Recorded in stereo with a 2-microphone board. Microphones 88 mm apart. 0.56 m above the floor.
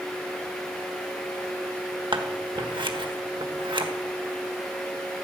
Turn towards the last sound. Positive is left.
turn(degrees=-65)  # may be behind; listen again after turning